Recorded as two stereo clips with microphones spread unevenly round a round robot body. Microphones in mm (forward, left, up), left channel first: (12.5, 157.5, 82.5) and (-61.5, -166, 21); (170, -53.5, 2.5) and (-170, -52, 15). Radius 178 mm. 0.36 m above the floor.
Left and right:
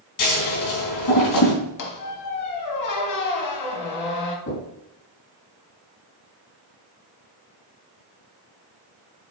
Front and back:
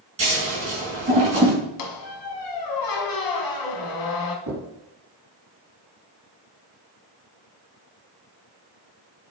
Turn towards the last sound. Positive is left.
turn(degrees=125)